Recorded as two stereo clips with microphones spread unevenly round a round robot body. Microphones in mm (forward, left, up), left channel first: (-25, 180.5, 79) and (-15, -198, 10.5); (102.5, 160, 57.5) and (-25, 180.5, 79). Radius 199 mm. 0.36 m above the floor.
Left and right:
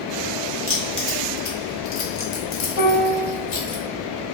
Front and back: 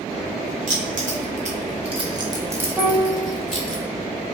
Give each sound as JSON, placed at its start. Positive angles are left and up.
{"t": 0.7, "sound": "keys jangling", "azimuth_deg": 165, "distance_m": 1.0}
{"t": 2.8, "sound": "a piano", "azimuth_deg": 0, "distance_m": 1.3}